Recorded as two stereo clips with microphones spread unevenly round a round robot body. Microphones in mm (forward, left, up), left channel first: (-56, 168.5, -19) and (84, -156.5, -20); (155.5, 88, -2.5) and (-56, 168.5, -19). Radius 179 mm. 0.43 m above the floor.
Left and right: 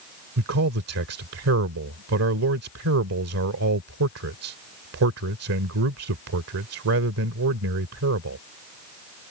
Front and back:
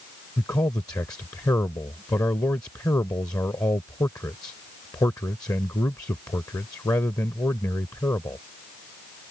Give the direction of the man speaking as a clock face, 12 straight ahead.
3 o'clock.